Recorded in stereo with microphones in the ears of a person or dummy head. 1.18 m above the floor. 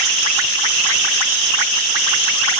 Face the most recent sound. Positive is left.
No sound to turn to.